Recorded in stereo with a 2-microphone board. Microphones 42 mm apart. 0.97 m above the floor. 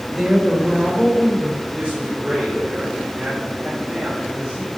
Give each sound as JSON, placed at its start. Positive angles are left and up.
{"t": 0.1, "sound": "a woman speaking", "side_deg": -10, "distance_m": 3.0}
{"t": 1.7, "sound": "a man speaking", "side_deg": -25, "distance_m": 3.5}